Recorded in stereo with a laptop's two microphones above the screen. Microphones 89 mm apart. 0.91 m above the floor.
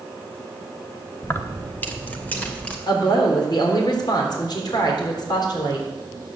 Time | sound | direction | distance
1.2 | keys jangling | 30° left (ahead or behind) | 0.9 m
2.9 | a woman speaking | 55° left (ahead or behind) | 3.5 m